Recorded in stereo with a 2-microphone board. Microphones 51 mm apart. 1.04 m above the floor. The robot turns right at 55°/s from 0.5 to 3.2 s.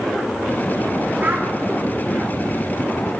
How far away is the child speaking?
About 0.5 m.